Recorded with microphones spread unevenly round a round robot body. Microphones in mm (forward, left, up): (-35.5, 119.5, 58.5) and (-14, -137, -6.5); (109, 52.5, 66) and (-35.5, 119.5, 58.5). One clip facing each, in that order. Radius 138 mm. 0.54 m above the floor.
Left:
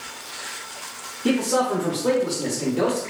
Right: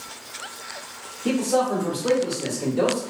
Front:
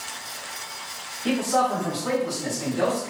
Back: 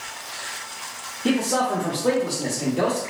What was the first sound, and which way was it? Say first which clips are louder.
A man speaking: left 1 dB, back 1 dB; 145° left.